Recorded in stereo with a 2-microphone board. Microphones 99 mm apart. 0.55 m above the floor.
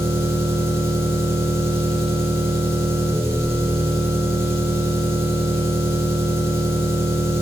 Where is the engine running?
30° right (ahead or behind), 4 m.